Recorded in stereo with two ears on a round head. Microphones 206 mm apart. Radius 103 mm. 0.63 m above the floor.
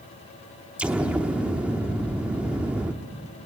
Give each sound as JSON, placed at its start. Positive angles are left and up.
{"t": 0.8, "sound": "an explosion", "side_deg": -5, "distance_m": 0.9}